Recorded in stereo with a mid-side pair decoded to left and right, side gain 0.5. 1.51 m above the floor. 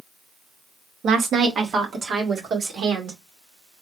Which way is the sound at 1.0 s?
50° right.